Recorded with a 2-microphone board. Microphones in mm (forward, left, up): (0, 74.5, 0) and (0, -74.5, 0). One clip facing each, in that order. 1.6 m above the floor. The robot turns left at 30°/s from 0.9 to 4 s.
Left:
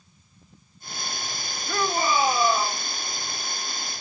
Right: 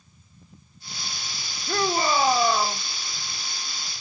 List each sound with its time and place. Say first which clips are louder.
1.7 s a shout: right 1 dB; 40° right, 2.0 m; by 2.8 s 75° right, 2.0 m